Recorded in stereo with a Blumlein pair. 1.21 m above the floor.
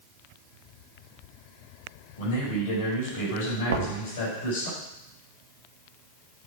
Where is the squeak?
I don't hear a squeak.